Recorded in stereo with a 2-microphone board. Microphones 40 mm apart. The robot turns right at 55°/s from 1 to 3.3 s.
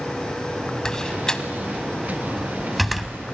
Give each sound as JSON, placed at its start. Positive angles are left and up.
{"t": 0.8, "sound": "a door slam", "side_deg": 20, "distance_m": 0.9}